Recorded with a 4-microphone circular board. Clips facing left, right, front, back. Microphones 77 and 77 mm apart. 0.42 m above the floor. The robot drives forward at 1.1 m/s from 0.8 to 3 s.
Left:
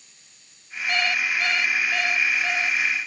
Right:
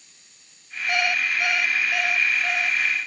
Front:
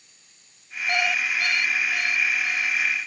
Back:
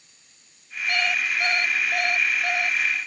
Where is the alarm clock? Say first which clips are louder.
Right 1 dB, front 1 dB; 30° right; by 2.8 s 175° right.